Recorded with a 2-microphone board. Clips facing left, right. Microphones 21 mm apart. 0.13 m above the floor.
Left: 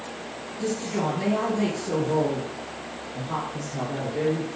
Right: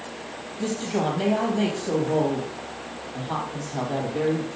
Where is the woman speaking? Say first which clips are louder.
Right 1 dB; 70° right (ahead or behind), 4 m.